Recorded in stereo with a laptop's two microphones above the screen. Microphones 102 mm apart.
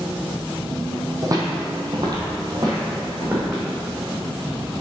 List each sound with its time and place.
1.2 s footsteps: 35° right (ahead or behind), 1.6 m; by 3.6 s 25° right (ahead or behind), 2.5 m